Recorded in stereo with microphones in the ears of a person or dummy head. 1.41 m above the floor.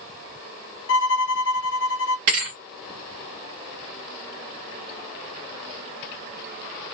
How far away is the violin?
About 0.5 m.